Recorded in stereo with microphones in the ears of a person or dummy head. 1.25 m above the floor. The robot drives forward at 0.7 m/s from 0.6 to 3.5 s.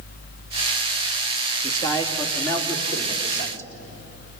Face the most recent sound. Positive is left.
turn(degrees=15)  # may be behind; listen again after turning